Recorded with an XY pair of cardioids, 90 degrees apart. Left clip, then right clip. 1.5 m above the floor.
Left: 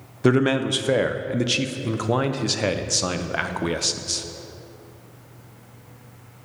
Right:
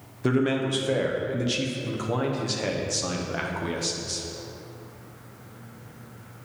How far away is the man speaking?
About 0.6 m.